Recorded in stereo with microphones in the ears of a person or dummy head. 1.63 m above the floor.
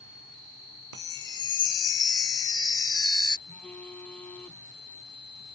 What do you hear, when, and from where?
0.9 s a chime: 15° left (ahead or behind)
3.5 s a phone buzzing: 10° left (ahead or behind)